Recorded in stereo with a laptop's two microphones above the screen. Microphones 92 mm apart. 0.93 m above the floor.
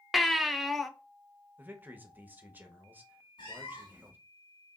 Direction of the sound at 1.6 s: 20° right (ahead or behind).